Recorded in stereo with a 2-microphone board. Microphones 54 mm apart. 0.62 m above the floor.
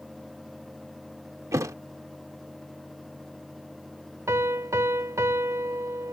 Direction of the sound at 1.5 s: 75° right (ahead or behind).